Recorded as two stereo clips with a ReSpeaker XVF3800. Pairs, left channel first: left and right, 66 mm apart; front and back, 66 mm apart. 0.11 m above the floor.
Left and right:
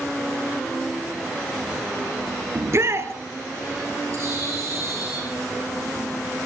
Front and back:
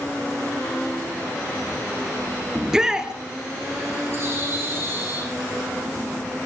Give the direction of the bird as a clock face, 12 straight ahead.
4 o'clock.